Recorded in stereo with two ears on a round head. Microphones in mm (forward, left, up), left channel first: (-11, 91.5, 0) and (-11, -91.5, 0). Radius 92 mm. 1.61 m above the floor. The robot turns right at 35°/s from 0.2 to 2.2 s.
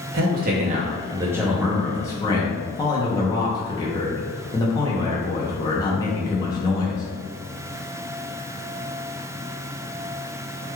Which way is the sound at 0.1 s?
50° right.